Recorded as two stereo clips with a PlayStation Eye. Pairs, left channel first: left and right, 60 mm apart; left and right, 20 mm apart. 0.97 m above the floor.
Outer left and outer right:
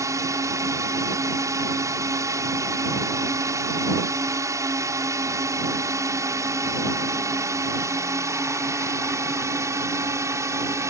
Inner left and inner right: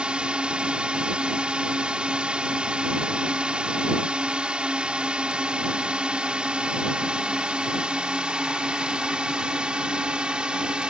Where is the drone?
60° right (ahead or behind); by 10.9 s 55° right (ahead or behind).